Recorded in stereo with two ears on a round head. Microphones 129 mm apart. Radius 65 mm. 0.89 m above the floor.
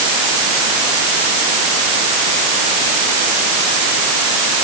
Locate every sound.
Only background noise.